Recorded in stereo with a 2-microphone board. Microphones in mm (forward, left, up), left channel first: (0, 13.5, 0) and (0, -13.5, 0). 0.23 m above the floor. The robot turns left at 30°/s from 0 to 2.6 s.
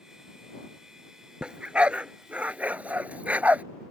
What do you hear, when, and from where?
1.4 s a dog barking: 40° right (ahead or behind); by 3.6 s 75° right (ahead or behind)